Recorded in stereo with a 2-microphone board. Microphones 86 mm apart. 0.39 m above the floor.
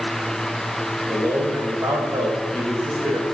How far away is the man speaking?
About 1.9 m.